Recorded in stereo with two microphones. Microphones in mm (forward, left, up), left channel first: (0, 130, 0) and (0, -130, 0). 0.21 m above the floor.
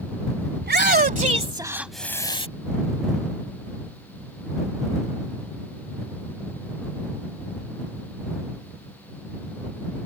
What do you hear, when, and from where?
0.6 s a shout: 45° right (ahead or behind); by 2.5 s 25° left (ahead or behind)